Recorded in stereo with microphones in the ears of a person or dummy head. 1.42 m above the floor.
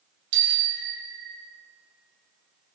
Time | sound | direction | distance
0.3 | a bicycle bell | 70° right (ahead or behind) | 2.5 m